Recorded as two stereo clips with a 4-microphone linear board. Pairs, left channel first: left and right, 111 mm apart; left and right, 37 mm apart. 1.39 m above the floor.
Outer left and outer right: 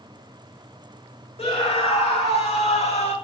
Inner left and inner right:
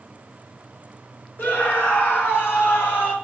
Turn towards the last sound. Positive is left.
turn(degrees=80)